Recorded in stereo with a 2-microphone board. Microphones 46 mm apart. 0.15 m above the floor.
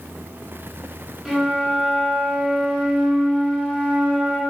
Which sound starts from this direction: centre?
A flute, at 1.2 s.